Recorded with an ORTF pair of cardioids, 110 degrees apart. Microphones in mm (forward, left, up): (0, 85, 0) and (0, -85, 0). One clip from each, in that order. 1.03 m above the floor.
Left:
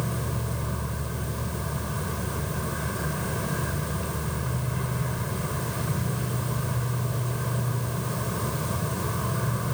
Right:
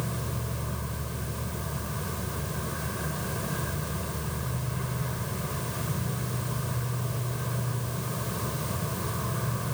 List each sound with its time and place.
0.0 s an insect: 15° left